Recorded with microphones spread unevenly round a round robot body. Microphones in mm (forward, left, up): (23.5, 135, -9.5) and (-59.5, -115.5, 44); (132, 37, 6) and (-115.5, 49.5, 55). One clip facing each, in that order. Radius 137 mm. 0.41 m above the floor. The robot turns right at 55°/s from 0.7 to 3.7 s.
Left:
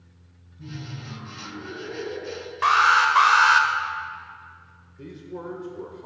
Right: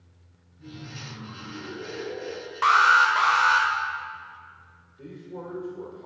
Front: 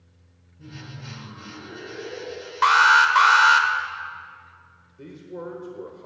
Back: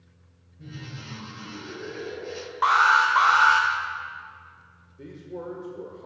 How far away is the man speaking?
About 1.4 m.